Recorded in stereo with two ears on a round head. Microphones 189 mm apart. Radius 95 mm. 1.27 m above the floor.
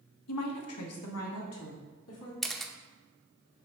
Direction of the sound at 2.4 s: Centre (ahead or behind).